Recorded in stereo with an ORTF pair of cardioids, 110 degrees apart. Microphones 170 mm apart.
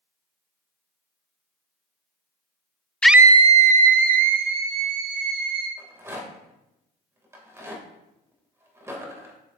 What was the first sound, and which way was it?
A scream, 5° left.